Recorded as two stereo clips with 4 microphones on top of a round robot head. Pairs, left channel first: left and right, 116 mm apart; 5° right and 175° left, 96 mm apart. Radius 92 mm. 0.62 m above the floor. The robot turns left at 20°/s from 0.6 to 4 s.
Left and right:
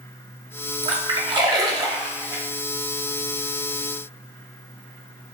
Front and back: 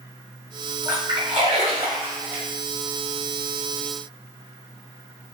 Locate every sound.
0.8 s a splash: 120° right, 0.5 m; by 2.4 s 150° right, 0.5 m